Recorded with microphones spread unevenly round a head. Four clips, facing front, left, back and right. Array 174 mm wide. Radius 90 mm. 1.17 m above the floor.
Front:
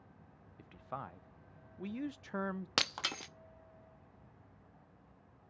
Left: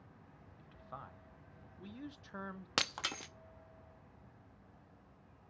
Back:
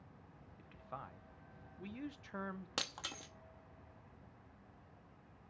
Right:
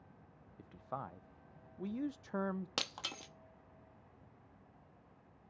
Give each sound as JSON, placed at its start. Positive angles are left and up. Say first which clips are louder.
{"t": 0.6, "sound": "a man speaking", "louder": "right 7 dB, front 5 dB", "azimuth_deg": -65, "distance_m": 0.6}
{"t": 2.8, "sound": "breaking glass", "louder": "left 4 dB, front 7 dB", "azimuth_deg": 35, "distance_m": 0.7}